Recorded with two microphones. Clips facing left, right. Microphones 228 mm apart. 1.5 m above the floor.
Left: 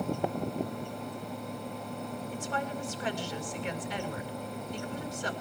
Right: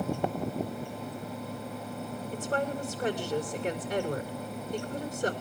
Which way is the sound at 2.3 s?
55° right (ahead or behind).